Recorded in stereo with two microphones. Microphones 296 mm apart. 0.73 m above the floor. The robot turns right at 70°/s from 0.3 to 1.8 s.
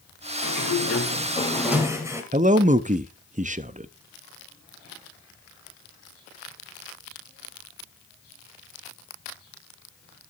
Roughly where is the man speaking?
Right.